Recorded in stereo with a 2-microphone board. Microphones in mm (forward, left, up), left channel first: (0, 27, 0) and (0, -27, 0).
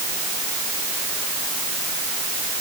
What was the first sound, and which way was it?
Only background noise.